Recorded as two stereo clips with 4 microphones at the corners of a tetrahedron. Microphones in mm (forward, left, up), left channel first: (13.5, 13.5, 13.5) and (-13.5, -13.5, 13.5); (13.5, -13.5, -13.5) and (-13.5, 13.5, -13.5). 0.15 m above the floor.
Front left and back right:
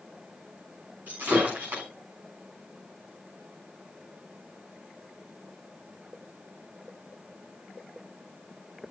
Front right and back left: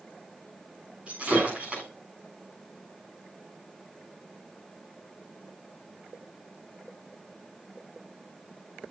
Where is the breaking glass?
165° right, 7.5 m.